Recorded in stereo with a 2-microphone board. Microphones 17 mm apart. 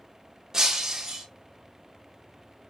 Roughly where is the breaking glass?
Right.